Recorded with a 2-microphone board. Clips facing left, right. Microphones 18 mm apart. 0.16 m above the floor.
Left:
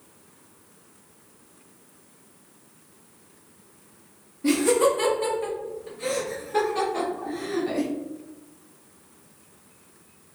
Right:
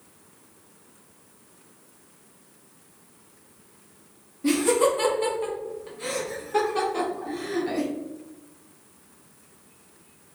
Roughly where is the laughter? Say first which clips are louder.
Left 1 dB; centre.